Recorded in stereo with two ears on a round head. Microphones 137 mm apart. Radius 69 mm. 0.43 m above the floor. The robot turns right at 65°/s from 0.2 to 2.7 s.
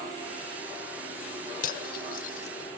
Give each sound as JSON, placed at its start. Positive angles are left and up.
{"t": 1.6, "sound": "cutlery clinking", "side_deg": 55, "distance_m": 0.8}